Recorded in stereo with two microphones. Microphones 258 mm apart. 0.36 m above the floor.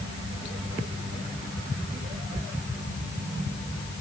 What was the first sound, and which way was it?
Only background noise.